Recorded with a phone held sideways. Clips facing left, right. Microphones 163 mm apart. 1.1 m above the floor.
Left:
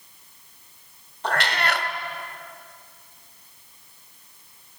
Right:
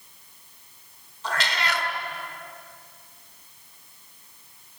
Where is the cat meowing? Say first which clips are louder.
Left 4 dB; 60° left (ahead or behind), 1.4 m.